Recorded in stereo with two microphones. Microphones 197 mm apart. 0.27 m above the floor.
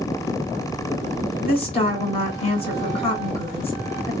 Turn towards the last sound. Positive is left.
turn(degrees=30)  # may be behind; listen again after turning